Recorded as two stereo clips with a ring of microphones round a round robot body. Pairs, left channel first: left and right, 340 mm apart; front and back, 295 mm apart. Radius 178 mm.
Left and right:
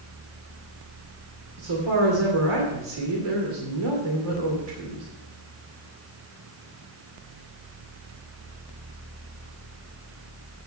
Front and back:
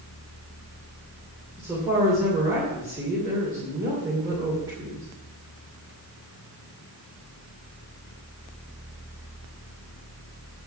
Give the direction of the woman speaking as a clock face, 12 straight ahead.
3 o'clock.